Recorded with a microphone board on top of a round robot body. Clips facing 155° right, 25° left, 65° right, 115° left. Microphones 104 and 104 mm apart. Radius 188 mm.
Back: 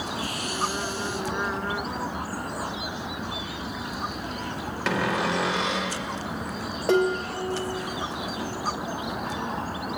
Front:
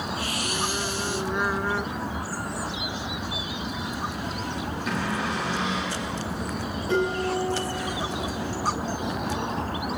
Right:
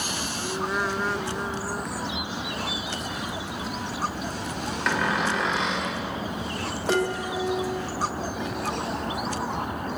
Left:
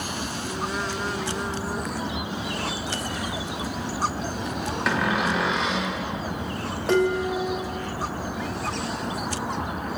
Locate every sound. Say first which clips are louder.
4.9 s a cupboard door: back 5 dB, left 1 dB; 160° right, 2 m
6.9 s dishes clattering: back 2 dB, left 4 dB; 155° right, 3 m